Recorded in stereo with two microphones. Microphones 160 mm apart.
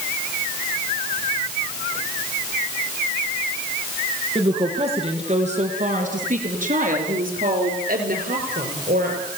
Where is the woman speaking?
35° right (ahead or behind), 3 m; by 9.2 s 70° right (ahead or behind), 4.5 m.